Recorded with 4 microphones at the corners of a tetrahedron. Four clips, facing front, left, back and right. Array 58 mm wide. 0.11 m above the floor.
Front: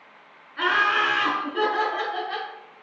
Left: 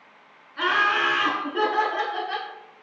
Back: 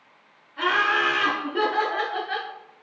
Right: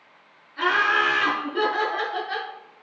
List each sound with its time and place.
0.6 s laughter: 10° left, 1.4 m; by 2.5 s straight behind, 1.4 m